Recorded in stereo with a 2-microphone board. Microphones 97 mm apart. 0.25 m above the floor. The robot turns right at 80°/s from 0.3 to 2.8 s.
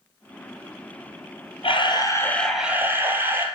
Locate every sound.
1.6 s a camera shutter: 105° left, 1.4 m; by 3.5 s 160° right, 1.4 m